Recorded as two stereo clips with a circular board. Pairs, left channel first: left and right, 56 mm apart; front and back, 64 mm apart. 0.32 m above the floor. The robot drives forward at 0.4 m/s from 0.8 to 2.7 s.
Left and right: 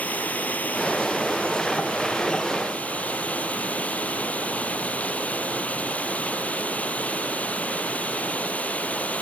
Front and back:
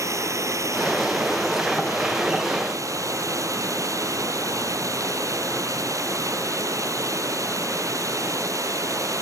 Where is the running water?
150° left.